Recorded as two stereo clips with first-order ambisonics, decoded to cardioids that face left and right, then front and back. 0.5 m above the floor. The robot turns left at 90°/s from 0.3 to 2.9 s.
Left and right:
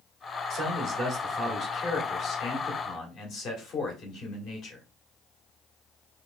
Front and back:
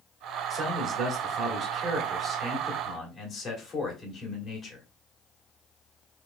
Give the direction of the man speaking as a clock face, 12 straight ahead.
3 o'clock.